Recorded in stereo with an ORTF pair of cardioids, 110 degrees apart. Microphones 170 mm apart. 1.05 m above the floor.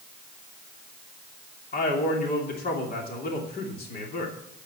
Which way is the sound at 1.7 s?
60° left.